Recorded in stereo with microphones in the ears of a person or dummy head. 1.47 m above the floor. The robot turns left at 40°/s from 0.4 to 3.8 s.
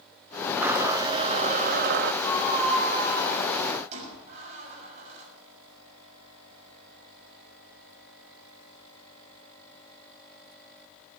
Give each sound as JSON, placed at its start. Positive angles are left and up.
{"t": 0.6, "sound": "a blender", "azimuth_deg": -5, "distance_m": 0.8}
{"t": 2.2, "sound": "a squeak", "side_deg": 20, "distance_m": 6.5}